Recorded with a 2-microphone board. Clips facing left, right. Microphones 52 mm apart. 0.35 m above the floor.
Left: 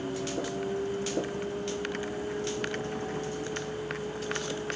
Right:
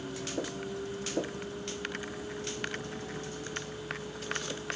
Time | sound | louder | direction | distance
0.0 | a vehicle | left 4 dB | 40° left (ahead or behind) | ?